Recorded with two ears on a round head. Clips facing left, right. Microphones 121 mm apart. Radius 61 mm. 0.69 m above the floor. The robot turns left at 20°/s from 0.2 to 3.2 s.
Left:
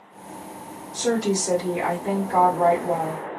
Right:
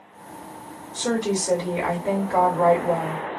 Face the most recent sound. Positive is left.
turn(degrees=55)